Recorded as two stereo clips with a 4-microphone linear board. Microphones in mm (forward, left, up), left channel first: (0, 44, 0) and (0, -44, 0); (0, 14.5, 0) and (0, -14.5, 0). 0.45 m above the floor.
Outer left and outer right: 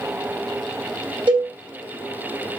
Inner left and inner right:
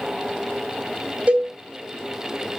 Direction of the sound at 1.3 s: 55° right (ahead or behind).